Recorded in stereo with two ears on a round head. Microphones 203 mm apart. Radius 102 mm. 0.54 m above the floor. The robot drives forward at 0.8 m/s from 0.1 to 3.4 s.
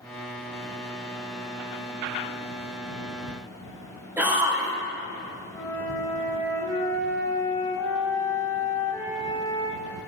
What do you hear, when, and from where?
4.2 s a shout: 10° right (ahead or behind), 1.9 m
5.5 s a flute: 10° left (ahead or behind), 3 m